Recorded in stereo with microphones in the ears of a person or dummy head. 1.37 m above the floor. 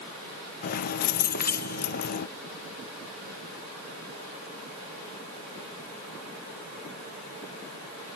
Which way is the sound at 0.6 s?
50° left (ahead or behind).